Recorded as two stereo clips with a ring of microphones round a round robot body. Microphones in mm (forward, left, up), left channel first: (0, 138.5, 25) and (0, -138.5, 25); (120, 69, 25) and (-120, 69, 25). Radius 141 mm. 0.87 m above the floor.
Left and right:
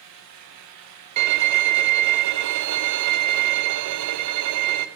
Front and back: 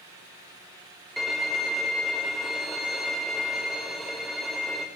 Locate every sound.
1.2 s a violin: 90° right, 0.5 m